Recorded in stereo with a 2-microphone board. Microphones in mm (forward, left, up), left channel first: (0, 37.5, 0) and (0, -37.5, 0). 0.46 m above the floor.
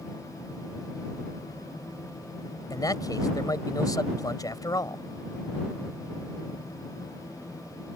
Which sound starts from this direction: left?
A man speaking, at 2.7 s.